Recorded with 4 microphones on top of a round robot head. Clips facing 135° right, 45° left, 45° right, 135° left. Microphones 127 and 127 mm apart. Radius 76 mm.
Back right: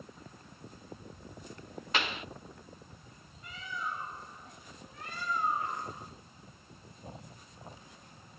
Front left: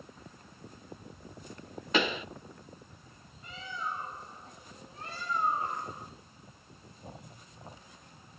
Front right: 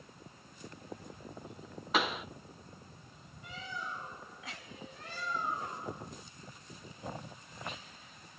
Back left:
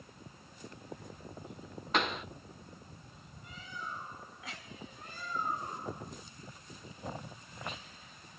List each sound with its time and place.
1.9 s a pop: 40° left, 0.5 m
3.4 s a bird: 20° right, 4.5 m